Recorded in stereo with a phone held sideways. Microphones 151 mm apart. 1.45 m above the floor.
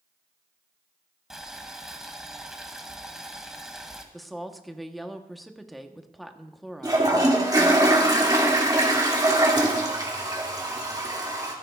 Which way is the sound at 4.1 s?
Centre (ahead or behind).